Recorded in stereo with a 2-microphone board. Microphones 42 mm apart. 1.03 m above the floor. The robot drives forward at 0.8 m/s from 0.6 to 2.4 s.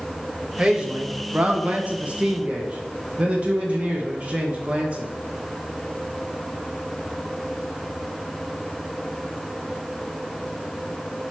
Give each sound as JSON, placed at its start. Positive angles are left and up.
{"t": 0.6, "sound": "a man speaking", "side_deg": -25, "distance_m": 1.3}